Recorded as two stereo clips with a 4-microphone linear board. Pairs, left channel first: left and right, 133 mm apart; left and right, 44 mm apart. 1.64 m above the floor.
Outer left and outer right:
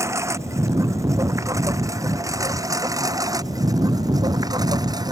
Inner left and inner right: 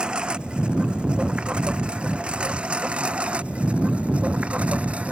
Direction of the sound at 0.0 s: 20° right (ahead or behind).